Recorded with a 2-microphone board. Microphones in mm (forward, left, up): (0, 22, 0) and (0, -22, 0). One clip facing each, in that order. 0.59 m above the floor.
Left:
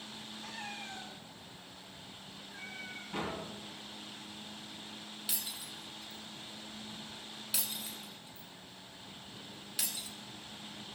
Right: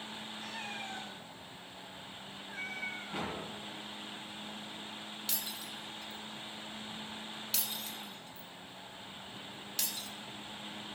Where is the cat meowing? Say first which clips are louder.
Right 1 dB; 65° right (ahead or behind), 3 m; by 3.5 s 55° right (ahead or behind), 1.8 m.